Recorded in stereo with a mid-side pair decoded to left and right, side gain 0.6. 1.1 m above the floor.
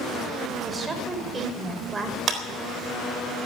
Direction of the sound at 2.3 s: 40° right.